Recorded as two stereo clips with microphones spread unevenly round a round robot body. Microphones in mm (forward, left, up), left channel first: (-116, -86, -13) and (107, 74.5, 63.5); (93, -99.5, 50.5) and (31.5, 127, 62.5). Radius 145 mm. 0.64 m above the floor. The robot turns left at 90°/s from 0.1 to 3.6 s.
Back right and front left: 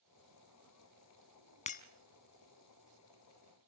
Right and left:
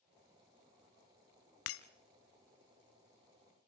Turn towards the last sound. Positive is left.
turn(degrees=115)